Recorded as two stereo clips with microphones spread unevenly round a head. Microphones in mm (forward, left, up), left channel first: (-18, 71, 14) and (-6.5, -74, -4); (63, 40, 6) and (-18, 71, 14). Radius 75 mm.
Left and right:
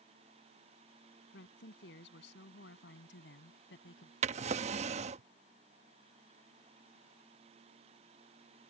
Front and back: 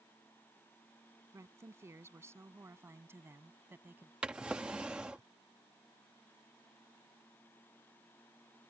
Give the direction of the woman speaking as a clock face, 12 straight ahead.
9 o'clock.